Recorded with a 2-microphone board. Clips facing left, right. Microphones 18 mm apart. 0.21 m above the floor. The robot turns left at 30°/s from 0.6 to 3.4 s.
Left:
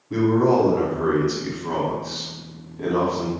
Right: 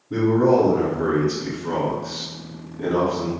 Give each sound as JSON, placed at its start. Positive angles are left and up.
{"t": 0.1, "sound": "a man speaking", "azimuth_deg": 80, "distance_m": 1.3}